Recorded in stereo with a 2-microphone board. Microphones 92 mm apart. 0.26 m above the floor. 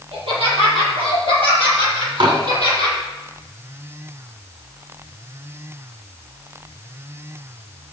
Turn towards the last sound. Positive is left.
turn(degrees=-60)  # may be behind; listen again after turning